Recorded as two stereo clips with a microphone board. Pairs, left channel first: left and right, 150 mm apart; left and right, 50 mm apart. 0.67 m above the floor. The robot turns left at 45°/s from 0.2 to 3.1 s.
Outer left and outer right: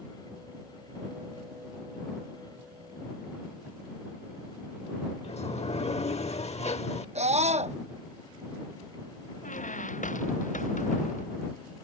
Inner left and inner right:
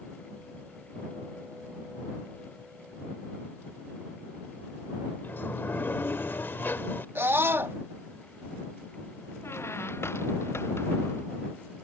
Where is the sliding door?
45° left (ahead or behind).